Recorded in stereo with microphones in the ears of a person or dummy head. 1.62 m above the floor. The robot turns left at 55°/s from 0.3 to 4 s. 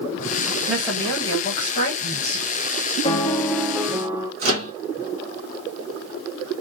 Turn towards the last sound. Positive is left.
turn(degrees=-40)  # may be behind; listen again after turning